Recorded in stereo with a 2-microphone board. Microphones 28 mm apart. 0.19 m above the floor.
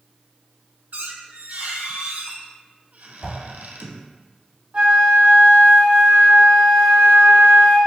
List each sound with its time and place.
0.9 s a squeak: 75° right (ahead or behind), 0.5 m
3.2 s a whoosh: 40° right (ahead or behind), 1.7 m
4.7 s a flute: 40° right (ahead or behind), 1.2 m